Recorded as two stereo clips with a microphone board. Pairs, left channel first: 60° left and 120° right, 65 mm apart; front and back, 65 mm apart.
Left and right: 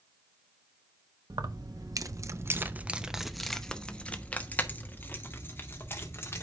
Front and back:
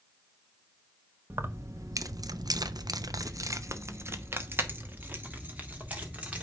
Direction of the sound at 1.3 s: 130° right.